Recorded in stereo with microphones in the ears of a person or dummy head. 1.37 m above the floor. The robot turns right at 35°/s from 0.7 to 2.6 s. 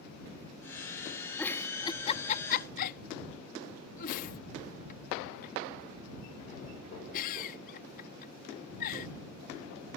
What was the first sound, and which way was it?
A giggle, 10° left (ahead or behind).